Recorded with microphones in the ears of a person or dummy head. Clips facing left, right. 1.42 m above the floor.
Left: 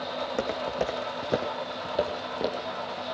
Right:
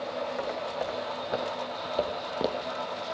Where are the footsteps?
50° left (ahead or behind), 4 m; by 2.7 s 15° right (ahead or behind), 2 m.